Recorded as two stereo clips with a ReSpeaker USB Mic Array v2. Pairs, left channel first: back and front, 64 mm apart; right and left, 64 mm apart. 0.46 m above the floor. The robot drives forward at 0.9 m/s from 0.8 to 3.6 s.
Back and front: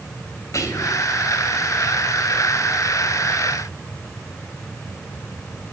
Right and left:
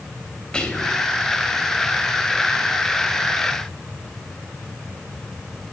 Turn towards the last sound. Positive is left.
turn(degrees=-170)